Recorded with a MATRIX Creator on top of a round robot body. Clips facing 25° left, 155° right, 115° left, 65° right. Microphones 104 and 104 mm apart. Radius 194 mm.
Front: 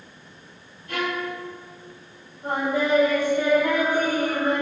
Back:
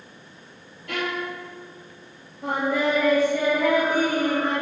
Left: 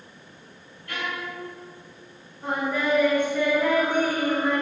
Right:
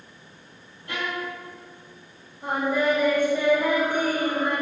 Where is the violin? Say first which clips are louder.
Front 1 dB, right 2 dB; 135° right, 1.4 m.